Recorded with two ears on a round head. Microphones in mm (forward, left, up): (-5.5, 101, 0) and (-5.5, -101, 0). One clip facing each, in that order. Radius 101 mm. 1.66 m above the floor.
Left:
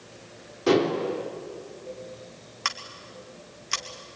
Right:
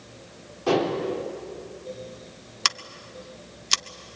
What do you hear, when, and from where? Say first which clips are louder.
0.7 s dishes clattering: left 2 dB; 25° left (ahead or behind), 3.5 m
2.6 s scissors: right 2 dB; 50° right (ahead or behind), 0.8 m